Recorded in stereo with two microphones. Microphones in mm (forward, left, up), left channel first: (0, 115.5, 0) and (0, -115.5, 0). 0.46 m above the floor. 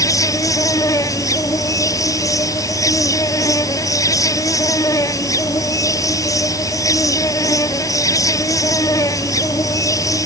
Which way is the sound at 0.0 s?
15° left (ahead or behind).